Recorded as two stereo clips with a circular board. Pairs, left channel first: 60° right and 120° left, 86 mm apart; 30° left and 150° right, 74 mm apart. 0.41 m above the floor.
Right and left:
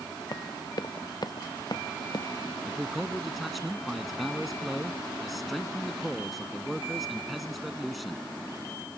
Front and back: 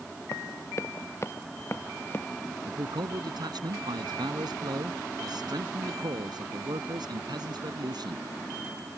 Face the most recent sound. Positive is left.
turn(degrees=-150)